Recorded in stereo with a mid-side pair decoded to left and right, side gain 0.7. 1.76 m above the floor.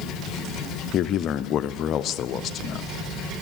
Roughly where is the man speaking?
Ahead left.